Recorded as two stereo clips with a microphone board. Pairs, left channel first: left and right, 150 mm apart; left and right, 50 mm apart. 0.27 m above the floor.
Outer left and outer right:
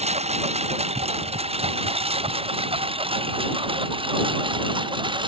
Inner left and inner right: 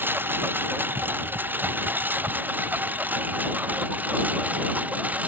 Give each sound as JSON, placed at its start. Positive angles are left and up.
{"t": 0.0, "sound": "a lawn mower", "side_deg": -45}